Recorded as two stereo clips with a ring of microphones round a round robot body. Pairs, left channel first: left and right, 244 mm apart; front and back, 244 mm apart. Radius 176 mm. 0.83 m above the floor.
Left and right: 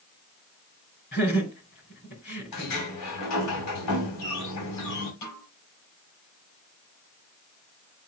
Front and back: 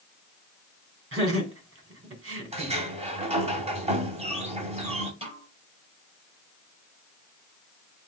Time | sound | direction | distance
1.1 | laughter | 150° left | 3.5 m
2.5 | a sliding door | 115° left | 2.5 m
5.2 | a snare drum | 115° left | 5 m